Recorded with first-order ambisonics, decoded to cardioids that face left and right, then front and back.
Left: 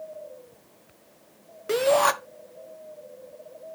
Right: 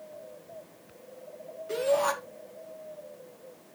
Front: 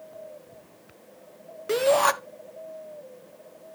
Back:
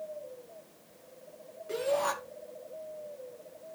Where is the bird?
I don't hear a bird.